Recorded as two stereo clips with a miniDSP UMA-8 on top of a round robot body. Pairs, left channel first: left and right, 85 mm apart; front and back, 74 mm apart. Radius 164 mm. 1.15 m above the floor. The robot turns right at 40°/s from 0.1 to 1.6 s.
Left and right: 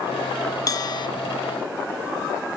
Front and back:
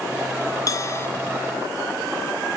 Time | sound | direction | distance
0.7 | a bell | 40° left | 0.7 m